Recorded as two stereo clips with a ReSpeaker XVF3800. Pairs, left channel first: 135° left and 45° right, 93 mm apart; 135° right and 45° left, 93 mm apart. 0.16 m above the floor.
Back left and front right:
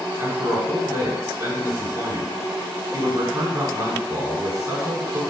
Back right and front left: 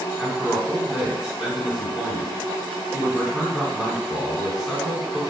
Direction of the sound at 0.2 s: 30° right.